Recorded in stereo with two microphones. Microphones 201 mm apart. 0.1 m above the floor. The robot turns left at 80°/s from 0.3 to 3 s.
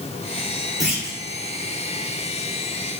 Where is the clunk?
35° right, 1.5 m; by 1.2 s 70° right, 1.5 m.